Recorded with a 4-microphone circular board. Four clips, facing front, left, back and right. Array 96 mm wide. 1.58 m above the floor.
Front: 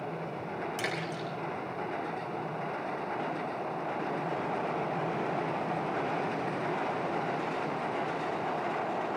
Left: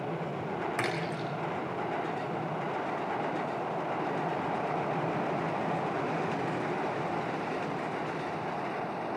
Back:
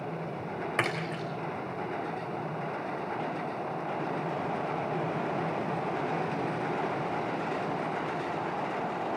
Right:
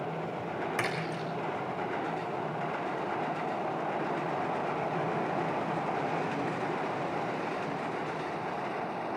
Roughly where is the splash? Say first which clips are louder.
Left 1 dB, back 3 dB; behind.